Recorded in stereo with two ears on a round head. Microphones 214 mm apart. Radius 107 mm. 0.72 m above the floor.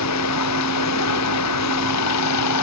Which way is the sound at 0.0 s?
75° left (ahead or behind).